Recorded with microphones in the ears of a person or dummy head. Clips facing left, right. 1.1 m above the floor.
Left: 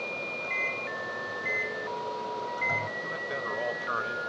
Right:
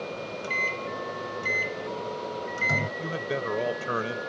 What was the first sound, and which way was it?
A microwave, 55° right (ahead or behind).